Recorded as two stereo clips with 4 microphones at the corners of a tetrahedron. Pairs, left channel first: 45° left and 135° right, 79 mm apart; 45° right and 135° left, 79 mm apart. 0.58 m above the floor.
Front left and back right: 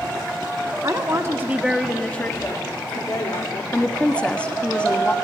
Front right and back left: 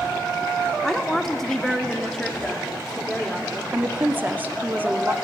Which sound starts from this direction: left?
A woman speaking, at 3.7 s.